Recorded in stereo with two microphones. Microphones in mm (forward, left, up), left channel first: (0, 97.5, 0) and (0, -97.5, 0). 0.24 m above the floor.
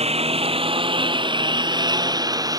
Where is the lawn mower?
30° right (ahead or behind); by 2.6 s 20° right (ahead or behind).